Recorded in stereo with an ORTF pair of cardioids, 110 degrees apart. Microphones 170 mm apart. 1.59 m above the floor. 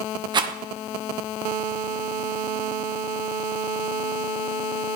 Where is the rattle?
30° right, 1.3 m.